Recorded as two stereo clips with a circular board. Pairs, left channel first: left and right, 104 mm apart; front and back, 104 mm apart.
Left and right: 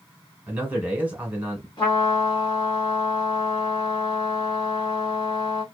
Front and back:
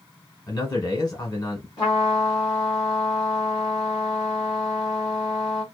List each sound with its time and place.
0.5 s a man speaking: 25° right, 1.4 m
1.8 s a trumpet: 45° left, 1.6 m